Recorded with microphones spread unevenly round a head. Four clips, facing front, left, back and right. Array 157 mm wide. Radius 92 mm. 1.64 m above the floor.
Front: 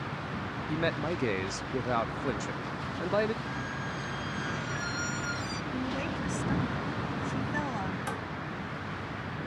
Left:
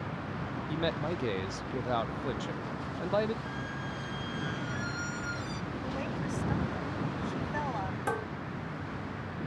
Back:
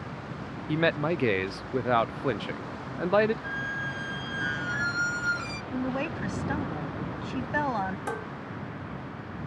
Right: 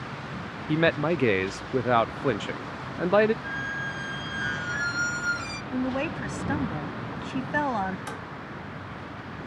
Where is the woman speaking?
105° right.